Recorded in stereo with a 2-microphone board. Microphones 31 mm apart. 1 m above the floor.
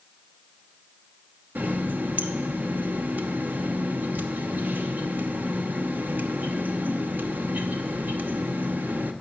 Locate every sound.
1.6 s a running tap: 85° right, 1.0 m